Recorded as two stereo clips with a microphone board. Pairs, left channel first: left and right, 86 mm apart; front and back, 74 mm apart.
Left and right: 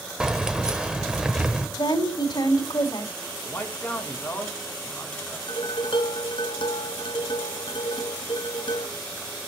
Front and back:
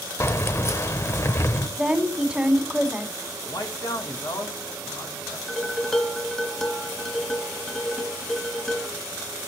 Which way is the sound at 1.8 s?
90° left.